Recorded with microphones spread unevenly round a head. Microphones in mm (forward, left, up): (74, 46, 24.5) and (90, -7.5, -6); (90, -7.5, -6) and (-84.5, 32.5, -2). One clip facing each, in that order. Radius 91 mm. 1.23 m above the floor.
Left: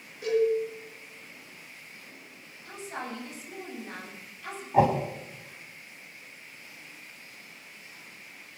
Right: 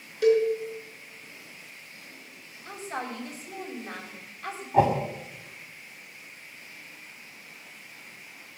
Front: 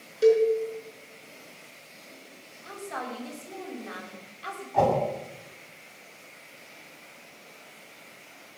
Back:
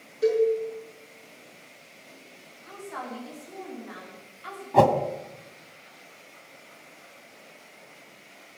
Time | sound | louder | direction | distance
0.2 | a cowbell | right 4 dB, front 2 dB | 70° right | 5 m
2.6 | a woman speaking | right 3 dB, front 1 dB | 40° right | 7.5 m
4.7 | a whoosh | right 1 dB, back 4 dB | 175° right | 1.8 m